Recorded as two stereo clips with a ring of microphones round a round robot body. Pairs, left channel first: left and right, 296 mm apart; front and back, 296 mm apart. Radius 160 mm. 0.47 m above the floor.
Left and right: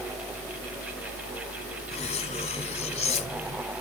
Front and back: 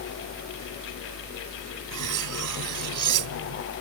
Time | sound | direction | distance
1.9 | cutlery clinking | 160° left | ?